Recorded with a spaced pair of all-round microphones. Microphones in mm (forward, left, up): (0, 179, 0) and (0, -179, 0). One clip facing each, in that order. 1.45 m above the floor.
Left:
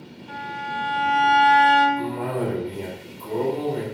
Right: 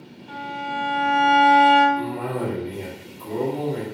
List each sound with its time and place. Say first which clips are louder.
0.3 s a violin: right 4 dB; 30° right (ahead or behind), 0.7 m
2.0 s a cough: left 1 dB; 80° right, 1.2 m